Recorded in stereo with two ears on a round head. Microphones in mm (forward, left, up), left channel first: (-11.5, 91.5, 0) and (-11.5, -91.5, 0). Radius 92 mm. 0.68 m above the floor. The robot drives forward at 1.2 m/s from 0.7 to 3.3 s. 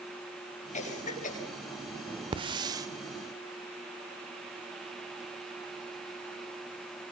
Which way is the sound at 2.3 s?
25° right (ahead or behind).